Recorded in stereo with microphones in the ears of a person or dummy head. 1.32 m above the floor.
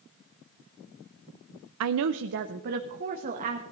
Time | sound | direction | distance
1.8 | a woman speaking | 70° right (ahead or behind) | 0.5 m